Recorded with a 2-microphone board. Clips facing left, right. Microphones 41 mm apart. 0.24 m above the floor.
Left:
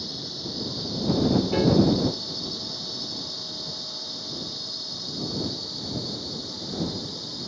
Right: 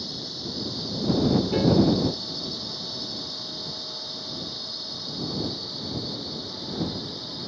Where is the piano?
15° left (ahead or behind).